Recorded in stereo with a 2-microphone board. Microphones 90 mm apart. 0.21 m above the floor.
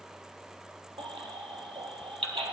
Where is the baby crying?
80° right, 1.8 m.